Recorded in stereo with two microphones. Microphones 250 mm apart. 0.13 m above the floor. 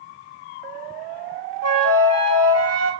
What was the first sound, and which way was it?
A flute, 80° right.